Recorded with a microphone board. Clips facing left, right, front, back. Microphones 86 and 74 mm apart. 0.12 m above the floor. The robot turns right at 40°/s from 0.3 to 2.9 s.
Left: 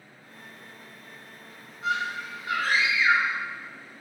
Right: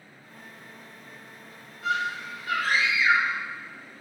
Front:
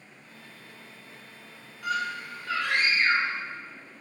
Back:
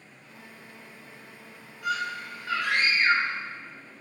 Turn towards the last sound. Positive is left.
turn(degrees=125)